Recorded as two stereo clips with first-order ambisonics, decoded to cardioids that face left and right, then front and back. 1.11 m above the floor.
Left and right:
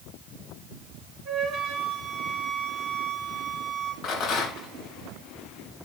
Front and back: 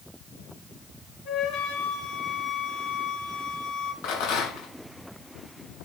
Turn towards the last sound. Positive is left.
turn(degrees=25)